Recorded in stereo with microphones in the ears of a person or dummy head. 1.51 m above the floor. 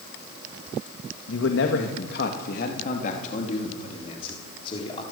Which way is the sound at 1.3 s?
80° left.